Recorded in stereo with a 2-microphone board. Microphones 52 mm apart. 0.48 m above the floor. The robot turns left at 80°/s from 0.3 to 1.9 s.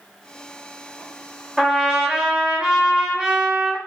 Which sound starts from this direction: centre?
A trumpet, at 1.6 s.